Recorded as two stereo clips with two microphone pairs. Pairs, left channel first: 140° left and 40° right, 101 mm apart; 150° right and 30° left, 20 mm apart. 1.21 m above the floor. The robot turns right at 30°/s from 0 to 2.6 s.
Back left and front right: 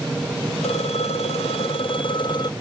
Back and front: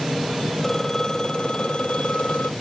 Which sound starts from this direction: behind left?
A phone ringing, at 0.6 s.